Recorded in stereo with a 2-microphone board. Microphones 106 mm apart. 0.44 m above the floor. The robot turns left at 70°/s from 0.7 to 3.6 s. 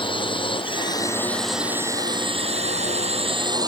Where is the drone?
50° left (ahead or behind); by 3.7 s 40° right (ahead or behind).